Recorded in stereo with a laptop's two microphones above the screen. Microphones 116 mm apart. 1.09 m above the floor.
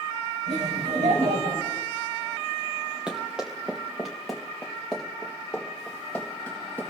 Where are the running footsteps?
5° right (ahead or behind), 5 m; by 6.8 s 10° left (ahead or behind), 7 m.